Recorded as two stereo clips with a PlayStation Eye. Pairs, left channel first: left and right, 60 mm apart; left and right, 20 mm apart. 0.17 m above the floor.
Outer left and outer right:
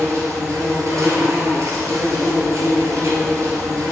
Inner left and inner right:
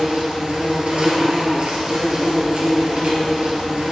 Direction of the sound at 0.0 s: 60° right (ahead or behind).